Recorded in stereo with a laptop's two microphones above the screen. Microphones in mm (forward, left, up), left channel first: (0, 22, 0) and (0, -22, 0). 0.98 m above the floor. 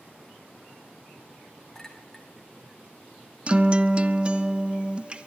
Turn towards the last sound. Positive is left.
turn(degrees=-25)  # may be behind; listen again after turning